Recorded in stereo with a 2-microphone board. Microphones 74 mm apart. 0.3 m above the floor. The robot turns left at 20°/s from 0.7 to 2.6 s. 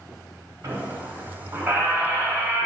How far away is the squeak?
About 0.8 m.